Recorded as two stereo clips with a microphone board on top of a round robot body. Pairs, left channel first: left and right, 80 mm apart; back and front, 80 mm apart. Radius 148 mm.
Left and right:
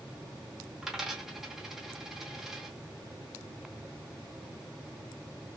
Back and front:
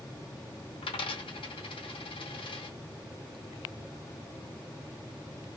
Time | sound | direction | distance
0.8 | a dropped coin | 175° right | 0.8 m